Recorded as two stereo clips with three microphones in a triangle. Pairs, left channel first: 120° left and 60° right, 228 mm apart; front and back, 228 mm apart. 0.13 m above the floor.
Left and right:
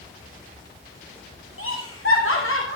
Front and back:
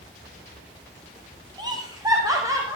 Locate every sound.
1.6 s laughter: 110° left, 6 m; by 2.8 s 105° left, 7 m